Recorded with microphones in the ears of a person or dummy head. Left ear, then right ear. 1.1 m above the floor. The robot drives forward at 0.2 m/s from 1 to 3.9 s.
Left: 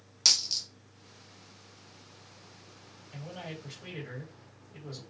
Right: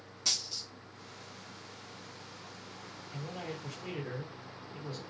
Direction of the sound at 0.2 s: 50° left (ahead or behind).